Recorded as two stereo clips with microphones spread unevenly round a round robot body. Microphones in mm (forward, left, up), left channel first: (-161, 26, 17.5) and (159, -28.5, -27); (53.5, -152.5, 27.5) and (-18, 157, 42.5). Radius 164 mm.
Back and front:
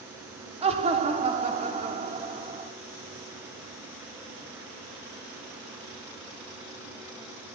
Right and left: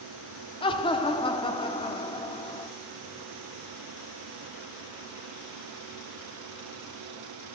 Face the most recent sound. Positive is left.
turn(degrees=-30)